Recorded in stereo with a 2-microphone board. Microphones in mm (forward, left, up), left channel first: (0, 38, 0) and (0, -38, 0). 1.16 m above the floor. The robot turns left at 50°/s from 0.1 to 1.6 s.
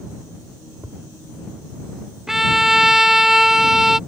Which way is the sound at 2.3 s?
5° right (ahead or behind).